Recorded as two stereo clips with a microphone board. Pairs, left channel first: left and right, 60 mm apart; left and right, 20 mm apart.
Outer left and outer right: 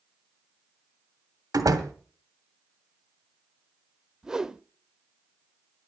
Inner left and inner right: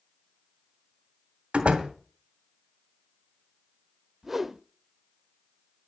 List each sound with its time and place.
1.5 s a door slam: 75° right (ahead or behind), 2 m
4.2 s a whoosh: 10° right (ahead or behind), 0.6 m